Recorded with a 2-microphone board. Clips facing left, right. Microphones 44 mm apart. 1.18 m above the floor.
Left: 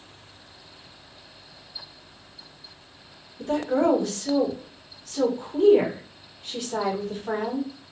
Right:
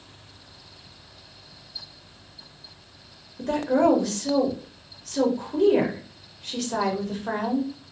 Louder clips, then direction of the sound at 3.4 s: Right 2 dB; 60° right (ahead or behind).